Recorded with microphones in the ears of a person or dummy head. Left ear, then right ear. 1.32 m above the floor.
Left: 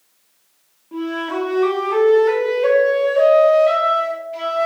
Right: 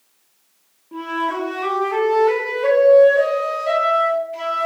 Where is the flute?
5° left (ahead or behind), 1.7 m.